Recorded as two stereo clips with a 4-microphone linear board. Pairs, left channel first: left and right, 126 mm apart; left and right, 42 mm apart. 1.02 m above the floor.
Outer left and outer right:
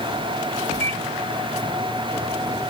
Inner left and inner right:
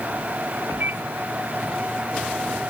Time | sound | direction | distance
0.8 | a microwave | 55° right (ahead or behind) | ?